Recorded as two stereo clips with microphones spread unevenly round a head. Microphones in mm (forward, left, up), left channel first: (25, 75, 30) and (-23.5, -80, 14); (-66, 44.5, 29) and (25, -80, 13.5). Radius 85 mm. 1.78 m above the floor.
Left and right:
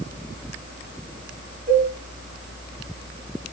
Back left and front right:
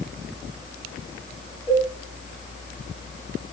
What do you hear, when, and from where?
1.7 s a cowbell: 120° right, 5.5 m